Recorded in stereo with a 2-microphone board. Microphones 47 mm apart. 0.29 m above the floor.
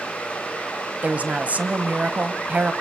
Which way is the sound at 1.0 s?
35° right (ahead or behind).